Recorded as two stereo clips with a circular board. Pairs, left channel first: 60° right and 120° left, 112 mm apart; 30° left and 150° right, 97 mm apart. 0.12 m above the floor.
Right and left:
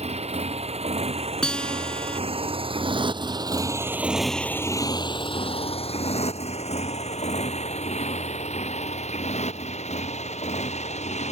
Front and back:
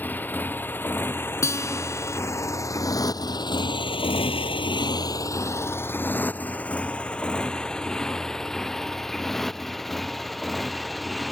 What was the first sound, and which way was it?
A motorcycle, 100° left.